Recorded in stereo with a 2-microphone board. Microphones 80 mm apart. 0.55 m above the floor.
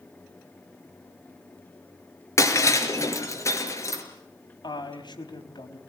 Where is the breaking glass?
40° left (ahead or behind), 4.5 m.